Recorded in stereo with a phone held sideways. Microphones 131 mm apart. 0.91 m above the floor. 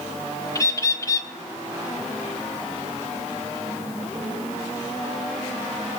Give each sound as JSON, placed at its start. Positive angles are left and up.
{"t": 0.6, "sound": "a bird", "side_deg": 25, "distance_m": 0.9}